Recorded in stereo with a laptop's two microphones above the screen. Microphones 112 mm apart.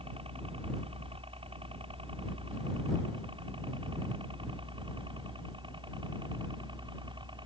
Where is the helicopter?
55° right (ahead or behind); by 7.5 s 45° right (ahead or behind).